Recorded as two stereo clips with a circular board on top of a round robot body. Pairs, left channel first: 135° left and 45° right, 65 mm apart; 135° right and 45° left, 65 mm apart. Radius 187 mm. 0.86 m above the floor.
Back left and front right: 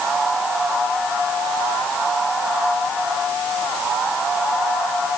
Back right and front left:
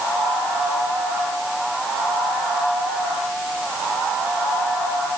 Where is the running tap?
No running tap in this recording.